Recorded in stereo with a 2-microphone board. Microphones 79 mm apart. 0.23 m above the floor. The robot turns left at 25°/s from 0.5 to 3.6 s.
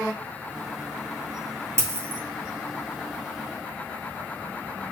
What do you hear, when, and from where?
1.8 s a dropped coin: 40° right (ahead or behind), 0.7 m; by 2.2 s 30° right (ahead or behind), 0.7 m